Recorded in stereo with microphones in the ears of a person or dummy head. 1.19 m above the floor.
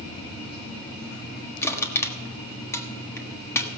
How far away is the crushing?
About 1.4 m.